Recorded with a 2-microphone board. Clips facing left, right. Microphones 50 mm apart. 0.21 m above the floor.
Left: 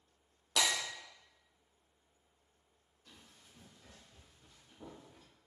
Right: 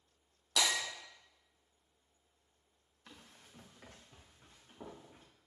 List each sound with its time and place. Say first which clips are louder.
0.6 s breaking glass: even; 35° left (ahead or behind), 3.5 m
3.1 s running footsteps: right 3 dB; 80° right, 1.7 m; by 5.2 s 30° right (ahead or behind), 3.5 m